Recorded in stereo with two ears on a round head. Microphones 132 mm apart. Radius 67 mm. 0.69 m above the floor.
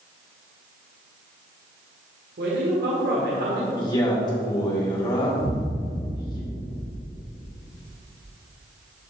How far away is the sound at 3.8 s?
About 2.0 m.